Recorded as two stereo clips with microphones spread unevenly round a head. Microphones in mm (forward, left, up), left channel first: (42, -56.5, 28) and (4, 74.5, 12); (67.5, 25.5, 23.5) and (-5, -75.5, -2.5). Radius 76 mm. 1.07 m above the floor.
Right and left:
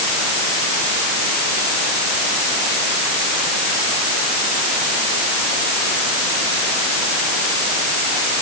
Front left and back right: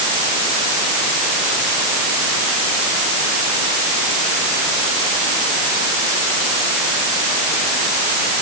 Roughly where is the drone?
I don't hear a drone.